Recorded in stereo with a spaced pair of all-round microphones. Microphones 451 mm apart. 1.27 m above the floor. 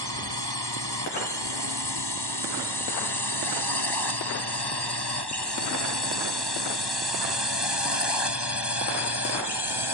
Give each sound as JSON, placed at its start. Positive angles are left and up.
{"t": 0.0, "sound": "a drone", "side_deg": 60}